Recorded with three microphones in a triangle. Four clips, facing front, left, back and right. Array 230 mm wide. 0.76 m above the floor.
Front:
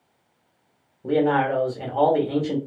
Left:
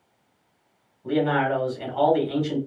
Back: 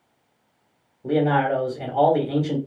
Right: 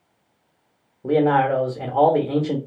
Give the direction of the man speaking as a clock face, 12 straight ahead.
3 o'clock.